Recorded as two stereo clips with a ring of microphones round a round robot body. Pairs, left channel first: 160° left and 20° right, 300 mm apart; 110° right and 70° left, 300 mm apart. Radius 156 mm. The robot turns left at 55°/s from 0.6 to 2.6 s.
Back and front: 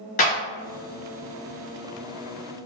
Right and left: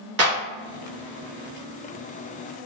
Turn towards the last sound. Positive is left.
turn(degrees=-10)